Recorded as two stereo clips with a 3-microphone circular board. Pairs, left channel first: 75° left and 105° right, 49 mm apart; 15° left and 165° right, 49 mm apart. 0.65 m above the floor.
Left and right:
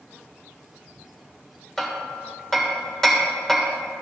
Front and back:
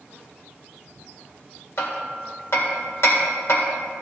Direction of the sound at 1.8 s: 5° right.